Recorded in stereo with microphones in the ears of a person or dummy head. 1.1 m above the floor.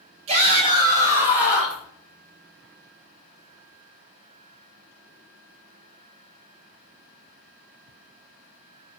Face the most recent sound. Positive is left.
turn(degrees=5)  # may be behind; listen again after turning